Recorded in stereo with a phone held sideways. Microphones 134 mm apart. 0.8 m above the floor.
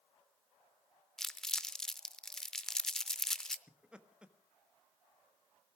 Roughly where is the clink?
I don't hear a clink.